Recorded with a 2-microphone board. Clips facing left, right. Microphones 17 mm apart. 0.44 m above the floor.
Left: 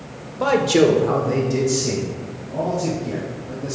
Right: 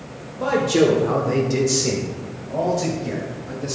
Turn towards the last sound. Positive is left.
turn(degrees=-70)  # may be behind; listen again after turning